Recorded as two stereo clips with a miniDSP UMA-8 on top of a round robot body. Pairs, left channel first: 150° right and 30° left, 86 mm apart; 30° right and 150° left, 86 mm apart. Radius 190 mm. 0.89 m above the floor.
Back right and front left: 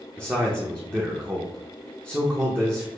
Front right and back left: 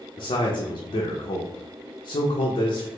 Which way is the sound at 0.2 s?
40° right.